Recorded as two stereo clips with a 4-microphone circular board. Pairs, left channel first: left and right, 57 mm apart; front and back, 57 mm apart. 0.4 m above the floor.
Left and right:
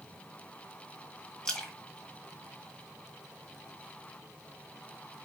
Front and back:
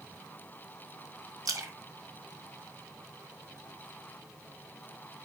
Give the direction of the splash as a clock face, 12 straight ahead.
6 o'clock.